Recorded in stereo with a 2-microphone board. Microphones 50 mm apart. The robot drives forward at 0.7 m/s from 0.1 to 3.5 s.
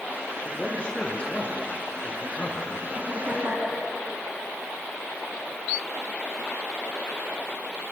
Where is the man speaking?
20° left (ahead or behind), 5.5 m; by 2.8 s 30° left (ahead or behind), 4 m.